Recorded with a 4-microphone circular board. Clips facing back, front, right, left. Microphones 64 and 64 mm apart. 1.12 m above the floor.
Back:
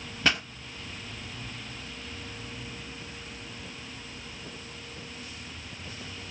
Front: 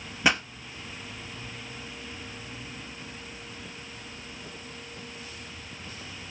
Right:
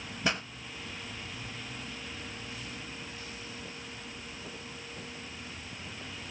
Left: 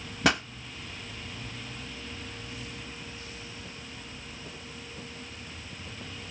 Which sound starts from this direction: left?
A pop, at 0.2 s.